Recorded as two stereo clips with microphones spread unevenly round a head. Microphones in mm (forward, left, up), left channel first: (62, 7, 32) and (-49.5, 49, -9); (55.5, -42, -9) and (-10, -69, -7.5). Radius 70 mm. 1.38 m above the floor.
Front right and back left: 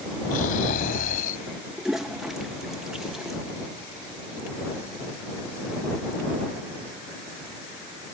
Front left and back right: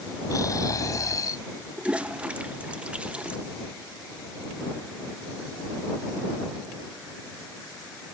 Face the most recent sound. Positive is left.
turn(degrees=-90)